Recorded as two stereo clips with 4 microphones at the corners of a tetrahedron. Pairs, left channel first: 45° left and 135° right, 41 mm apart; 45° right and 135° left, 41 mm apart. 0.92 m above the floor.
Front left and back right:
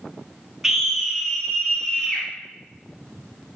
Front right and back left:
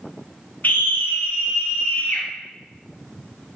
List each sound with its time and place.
0.6 s a scream: 60° right, 0.7 m; by 2.2 s 30° right, 1.5 m